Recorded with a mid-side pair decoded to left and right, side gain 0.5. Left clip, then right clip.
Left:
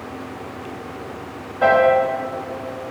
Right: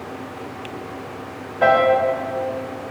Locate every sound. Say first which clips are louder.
1.6 s a piano: left 1 dB; 10° right, 1.3 m